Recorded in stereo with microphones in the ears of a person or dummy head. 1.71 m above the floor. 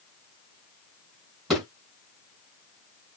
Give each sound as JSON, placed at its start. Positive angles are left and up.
{"t": 1.5, "sound": "a thud", "side_deg": 0, "distance_m": 2.5}